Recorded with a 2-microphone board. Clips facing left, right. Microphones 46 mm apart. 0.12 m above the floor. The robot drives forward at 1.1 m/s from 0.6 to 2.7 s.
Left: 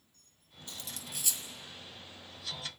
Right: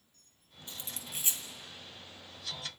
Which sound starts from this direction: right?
Cutlery clinking, at 0.7 s.